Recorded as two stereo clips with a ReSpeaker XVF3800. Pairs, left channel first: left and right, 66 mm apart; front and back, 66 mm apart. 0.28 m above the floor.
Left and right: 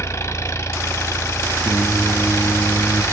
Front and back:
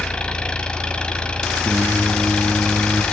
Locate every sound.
0.0 s an engine running: 70° left, 1.4 m
1.6 s singing: 60° left, 1.5 m